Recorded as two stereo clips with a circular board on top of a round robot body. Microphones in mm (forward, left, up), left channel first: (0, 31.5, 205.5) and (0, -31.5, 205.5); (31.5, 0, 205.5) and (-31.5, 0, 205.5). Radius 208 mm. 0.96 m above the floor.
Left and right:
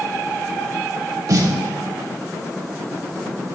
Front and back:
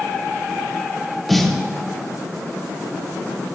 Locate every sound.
1.3 s a snare drum: 90° right, 1.4 m